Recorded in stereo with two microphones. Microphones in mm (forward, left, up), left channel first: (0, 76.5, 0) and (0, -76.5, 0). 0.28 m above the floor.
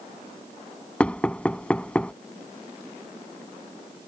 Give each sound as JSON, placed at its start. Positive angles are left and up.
{"t": 1.0, "sound": "knocking", "side_deg": 10}